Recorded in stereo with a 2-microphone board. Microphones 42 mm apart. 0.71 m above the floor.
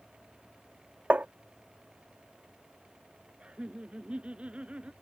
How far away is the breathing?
I don't hear breathing.